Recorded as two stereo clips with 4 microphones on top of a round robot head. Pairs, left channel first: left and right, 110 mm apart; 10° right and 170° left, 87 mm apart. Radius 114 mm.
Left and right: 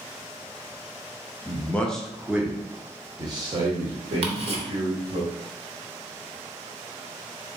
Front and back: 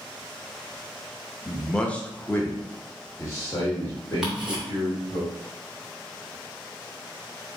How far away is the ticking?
About 0.9 m.